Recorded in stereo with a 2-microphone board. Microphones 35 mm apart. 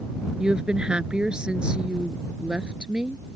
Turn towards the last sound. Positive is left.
turn(degrees=-25)  # may be behind; listen again after turning